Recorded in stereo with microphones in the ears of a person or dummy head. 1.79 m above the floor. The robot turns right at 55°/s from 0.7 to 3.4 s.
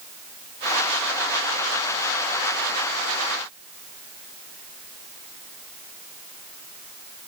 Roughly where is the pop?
No pop in this recording.